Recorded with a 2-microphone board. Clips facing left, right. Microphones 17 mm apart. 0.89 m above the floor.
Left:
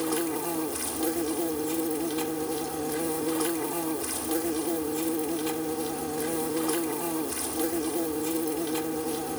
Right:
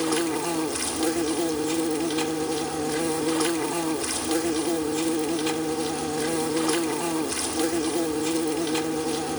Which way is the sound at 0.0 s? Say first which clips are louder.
Right 4 dB; 40° right (ahead or behind).